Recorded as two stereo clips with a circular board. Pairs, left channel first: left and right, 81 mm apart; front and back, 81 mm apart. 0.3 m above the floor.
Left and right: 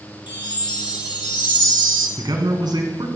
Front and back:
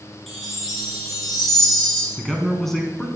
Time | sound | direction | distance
0.3 | a chime | 85° left | 4.5 m
2.2 | a man speaking | 85° right | 2.5 m